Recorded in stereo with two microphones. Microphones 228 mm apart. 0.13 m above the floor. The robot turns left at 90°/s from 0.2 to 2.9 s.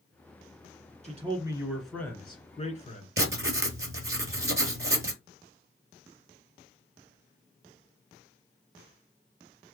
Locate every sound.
1.0 s a man speaking: 110° right, 1.6 m; by 3.1 s 85° left, 1.6 m
3.2 s writing: 60° right (ahead or behind), 0.8 m